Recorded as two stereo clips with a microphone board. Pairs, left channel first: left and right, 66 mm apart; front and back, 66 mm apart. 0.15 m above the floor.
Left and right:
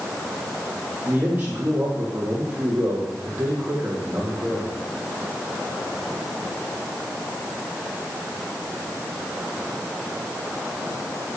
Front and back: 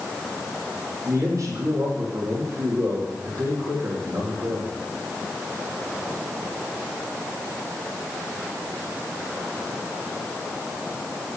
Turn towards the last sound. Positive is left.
turn(degrees=-150)